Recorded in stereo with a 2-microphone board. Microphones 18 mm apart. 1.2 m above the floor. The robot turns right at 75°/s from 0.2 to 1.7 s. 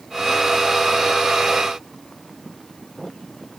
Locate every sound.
Only background noise.